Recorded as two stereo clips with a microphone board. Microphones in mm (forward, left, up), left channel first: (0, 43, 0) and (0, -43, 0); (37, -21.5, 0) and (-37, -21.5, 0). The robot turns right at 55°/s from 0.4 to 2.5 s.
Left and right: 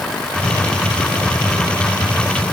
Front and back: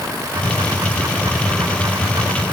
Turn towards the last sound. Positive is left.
No sound to turn to.